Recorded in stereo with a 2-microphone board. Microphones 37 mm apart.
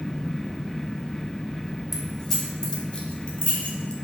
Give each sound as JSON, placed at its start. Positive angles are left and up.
{"t": 1.9, "sound": "keys jangling", "side_deg": 5, "distance_m": 1.5}